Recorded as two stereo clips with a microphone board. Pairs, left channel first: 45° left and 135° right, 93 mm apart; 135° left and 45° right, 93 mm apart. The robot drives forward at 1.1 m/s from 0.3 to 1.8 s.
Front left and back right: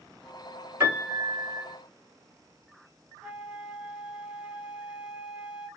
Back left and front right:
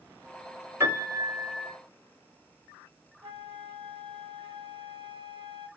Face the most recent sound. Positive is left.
turn(degrees=-60)